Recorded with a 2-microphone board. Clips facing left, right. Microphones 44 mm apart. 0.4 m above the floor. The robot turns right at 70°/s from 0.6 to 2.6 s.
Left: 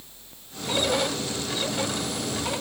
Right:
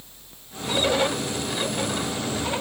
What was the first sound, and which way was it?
Only background noise.